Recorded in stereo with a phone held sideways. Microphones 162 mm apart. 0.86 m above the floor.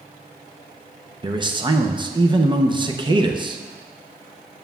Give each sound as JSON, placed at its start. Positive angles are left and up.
{"t": 1.2, "sound": "a man speaking", "side_deg": -30, "distance_m": 0.6}